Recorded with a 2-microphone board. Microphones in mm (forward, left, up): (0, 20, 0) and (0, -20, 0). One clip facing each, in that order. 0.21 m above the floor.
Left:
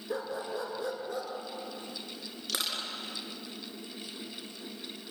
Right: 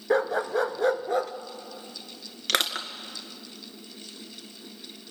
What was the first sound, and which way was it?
A dog barking, 70° right (ahead or behind).